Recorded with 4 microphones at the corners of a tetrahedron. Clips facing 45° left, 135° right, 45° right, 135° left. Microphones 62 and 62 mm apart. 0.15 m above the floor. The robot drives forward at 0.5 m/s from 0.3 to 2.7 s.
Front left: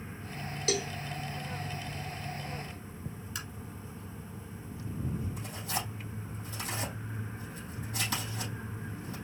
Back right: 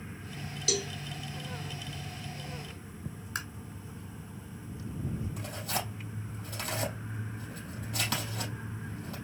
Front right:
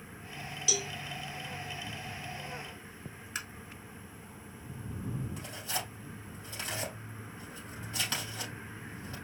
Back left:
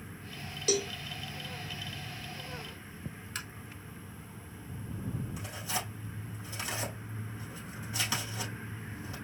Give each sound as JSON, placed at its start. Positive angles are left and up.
{"t": 0.7, "sound": "a cowbell", "azimuth_deg": 95, "distance_m": 0.6}
{"t": 3.4, "sound": "tapping", "azimuth_deg": -120, "distance_m": 1.4}
{"t": 5.4, "sound": "tearing paper", "azimuth_deg": -140, "distance_m": 4.0}